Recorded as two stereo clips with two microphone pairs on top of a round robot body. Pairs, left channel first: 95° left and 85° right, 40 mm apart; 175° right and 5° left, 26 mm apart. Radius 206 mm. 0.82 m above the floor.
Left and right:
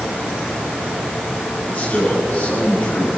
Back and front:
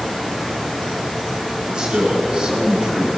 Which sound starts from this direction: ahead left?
A man speaking, at 1.7 s.